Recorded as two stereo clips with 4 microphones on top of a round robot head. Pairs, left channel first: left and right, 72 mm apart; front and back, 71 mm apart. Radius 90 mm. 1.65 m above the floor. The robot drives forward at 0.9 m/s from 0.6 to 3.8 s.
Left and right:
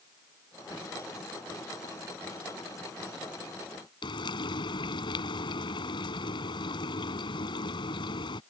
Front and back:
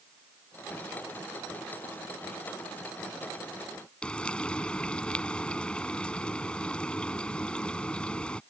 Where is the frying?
80° left.